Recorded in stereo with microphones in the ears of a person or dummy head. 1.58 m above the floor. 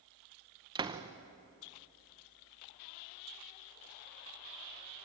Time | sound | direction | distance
0.8 | a door slam | 20° right (ahead or behind) | 0.8 m